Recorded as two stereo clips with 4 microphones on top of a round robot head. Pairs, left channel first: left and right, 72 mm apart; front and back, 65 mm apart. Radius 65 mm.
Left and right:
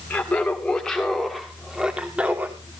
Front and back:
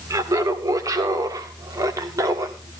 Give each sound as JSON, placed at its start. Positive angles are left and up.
{"t": 0.1, "sound": "laughter", "azimuth_deg": 155, "distance_m": 1.8}